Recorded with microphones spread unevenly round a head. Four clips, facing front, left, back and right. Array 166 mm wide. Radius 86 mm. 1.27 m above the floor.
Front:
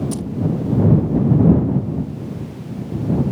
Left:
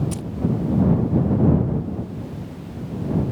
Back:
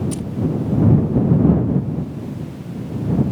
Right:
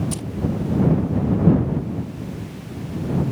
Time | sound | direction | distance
0.1 | keys jangling | 5° right | ?